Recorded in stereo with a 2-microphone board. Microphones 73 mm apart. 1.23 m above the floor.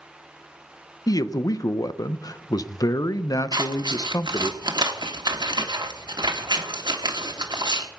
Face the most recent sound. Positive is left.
turn(degrees=-75)  # may be behind; listen again after turning